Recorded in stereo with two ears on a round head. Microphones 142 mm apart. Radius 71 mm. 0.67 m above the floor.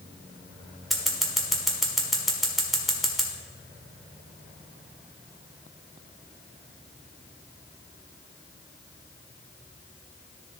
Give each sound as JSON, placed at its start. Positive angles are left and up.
{"t": 0.9, "sound": "scissors", "side_deg": 0, "distance_m": 1.4}